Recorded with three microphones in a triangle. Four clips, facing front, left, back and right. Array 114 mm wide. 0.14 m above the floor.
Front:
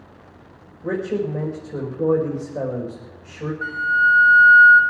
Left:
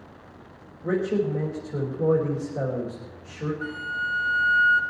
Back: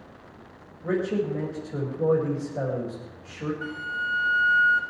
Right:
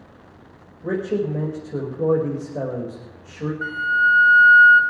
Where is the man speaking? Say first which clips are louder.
Right 1 dB, front 2 dB; 65° right, 6 m.